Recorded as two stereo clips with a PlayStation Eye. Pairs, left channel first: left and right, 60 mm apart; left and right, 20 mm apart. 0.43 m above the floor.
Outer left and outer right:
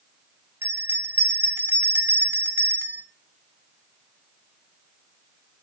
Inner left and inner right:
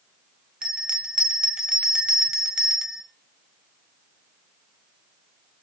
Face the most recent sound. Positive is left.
turn(degrees=-35)  # may be behind; listen again after turning